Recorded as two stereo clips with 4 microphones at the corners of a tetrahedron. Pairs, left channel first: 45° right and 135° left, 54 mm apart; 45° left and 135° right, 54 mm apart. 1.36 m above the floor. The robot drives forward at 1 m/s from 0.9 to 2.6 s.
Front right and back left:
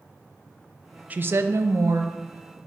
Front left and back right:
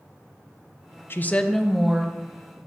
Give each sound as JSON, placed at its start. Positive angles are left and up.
{"t": 1.1, "sound": "a woman speaking", "azimuth_deg": 80, "distance_m": 0.6}